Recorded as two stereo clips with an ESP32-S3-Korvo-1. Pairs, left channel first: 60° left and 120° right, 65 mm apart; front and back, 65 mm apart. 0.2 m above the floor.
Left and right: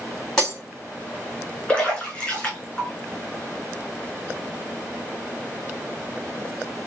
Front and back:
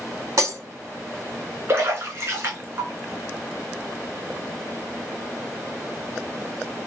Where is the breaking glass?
150° left, 3 m.